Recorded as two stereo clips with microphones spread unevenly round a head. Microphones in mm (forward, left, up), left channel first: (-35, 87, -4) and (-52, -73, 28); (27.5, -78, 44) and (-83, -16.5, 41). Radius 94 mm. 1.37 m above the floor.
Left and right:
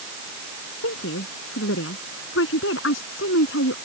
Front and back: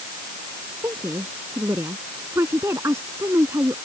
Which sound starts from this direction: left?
A woman speaking, at 0.8 s.